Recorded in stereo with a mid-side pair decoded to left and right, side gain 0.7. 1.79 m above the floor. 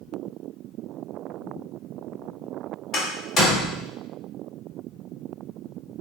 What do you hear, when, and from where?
2.9 s a door slam: 40° left, 1.8 m